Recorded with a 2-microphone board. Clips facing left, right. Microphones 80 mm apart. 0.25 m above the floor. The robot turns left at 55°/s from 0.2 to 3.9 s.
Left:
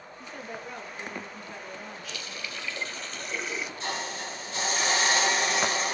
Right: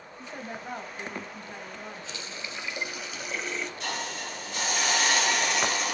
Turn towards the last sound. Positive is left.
turn(degrees=35)  # may be behind; listen again after turning